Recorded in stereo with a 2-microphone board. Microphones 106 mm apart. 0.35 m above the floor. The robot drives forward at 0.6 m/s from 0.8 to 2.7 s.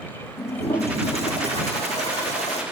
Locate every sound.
0.4 s a toilet flushing: 75° left (ahead or behind), 5 m; by 2.6 s 85° left, 4.5 m